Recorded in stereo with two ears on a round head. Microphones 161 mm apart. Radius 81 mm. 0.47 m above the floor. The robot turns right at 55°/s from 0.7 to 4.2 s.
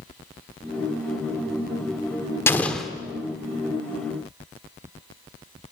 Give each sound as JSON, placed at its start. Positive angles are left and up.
{"t": 2.5, "sound": "an explosion", "side_deg": 15, "distance_m": 1.2}